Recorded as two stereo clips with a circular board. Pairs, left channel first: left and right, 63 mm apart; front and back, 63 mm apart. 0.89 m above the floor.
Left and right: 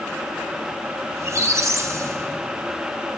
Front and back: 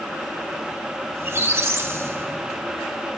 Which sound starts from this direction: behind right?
A squeak, at 1.1 s.